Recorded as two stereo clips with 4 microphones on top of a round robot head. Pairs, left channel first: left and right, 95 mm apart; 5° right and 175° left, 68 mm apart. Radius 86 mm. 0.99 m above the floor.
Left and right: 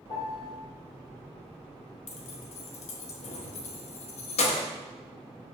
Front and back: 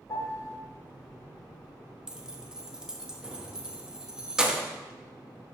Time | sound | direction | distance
0.1 | a piano | 40° left | 2 m
2.1 | keys jangling | 95° left | 1.0 m